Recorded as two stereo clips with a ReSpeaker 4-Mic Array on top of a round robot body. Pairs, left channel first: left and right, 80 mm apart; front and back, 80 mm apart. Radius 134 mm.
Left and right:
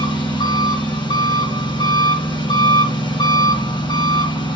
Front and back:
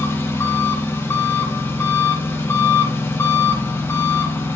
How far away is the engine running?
About 1.8 m.